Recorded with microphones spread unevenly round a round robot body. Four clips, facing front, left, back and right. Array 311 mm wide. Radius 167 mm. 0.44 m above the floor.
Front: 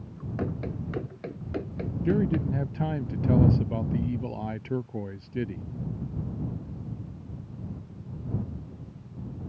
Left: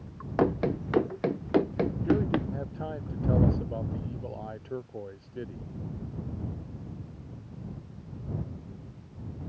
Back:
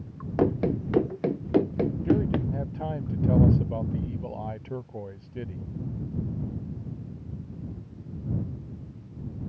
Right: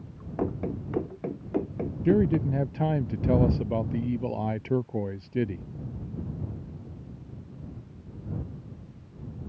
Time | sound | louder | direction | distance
0.4 | running footsteps | left 4 dB, back 9 dB | 175° left | ?
2.0 | a man speaking | right 6 dB, front 2 dB | 75° right | ?